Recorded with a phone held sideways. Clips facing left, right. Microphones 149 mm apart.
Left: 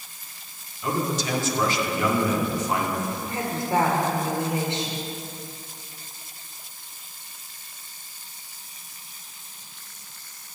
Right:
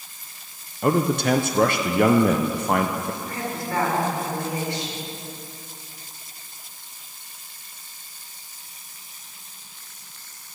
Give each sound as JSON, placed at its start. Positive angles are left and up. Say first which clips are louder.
{"t": 0.8, "sound": "a man speaking", "louder": "right 6 dB", "side_deg": -60, "distance_m": 0.8}
{"t": 3.2, "sound": "a woman speaking", "louder": "left 1 dB", "side_deg": 25, "distance_m": 3.5}